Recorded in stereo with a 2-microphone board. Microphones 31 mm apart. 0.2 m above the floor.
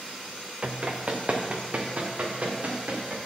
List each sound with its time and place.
0.6 s running footsteps: 40° right (ahead or behind), 1.1 m; by 3.2 s 50° right (ahead or behind), 3 m